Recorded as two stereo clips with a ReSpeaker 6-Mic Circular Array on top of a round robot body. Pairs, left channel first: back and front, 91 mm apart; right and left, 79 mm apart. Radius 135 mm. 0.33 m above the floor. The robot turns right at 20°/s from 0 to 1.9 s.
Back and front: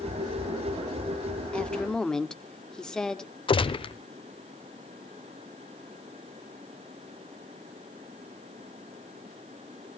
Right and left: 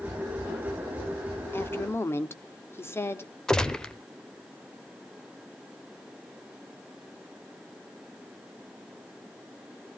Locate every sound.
1.5 s a woman speaking: 115° right, 1.4 m; by 3.3 s 105° right, 1.4 m
3.5 s a gunshot: 170° right, 1.0 m